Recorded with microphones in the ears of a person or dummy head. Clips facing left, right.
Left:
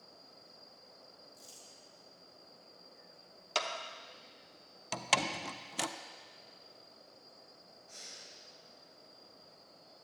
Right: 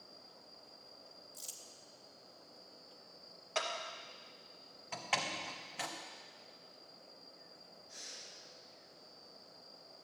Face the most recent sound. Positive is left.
turn(degrees=75)  # may be behind; listen again after turning